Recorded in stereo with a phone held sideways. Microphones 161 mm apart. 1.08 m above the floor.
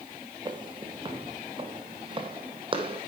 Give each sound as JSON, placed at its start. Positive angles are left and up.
{"t": 0.5, "sound": "footsteps", "side_deg": -30, "distance_m": 1.9}